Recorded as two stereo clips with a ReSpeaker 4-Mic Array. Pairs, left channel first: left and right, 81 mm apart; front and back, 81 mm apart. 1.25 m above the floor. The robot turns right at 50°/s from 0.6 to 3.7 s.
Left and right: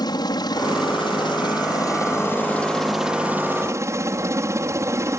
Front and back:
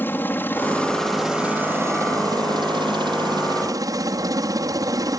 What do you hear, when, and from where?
0.0 s a helicopter: 65° left; by 5.2 s 140° right